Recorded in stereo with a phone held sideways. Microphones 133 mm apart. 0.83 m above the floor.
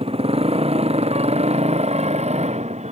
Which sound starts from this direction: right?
A motorcycle, at 0.0 s.